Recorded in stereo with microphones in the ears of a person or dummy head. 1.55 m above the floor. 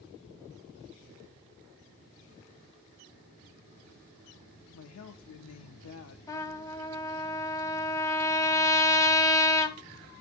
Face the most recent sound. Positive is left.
turn(degrees=15)  # may be behind; listen again after turning